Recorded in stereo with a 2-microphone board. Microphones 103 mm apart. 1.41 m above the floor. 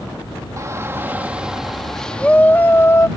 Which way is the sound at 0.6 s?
35° right (ahead or behind).